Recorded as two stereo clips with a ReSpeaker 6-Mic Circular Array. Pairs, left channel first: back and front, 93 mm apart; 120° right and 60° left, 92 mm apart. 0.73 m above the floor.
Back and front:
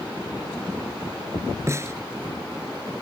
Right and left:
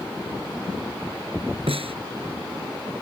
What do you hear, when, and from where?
1.7 s a snare drum: 60° left